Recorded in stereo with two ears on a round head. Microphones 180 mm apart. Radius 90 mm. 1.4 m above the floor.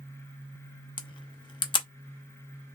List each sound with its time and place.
1.0 s a camera shutter: 25° left (ahead or behind), 0.6 m